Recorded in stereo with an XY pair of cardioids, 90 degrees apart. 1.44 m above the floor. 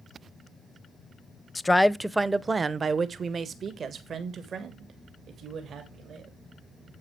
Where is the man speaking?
25° left, 0.6 m; by 6.4 s 70° right, 3 m.